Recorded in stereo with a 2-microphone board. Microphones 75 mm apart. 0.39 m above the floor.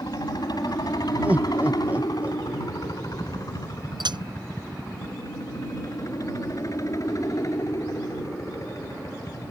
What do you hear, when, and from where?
0.0 s a helicopter: 60° left (ahead or behind); by 9.5 s 45° left (ahead or behind)
1.2 s laughter: 20° right (ahead or behind)
4.0 s a clink: 75° right (ahead or behind)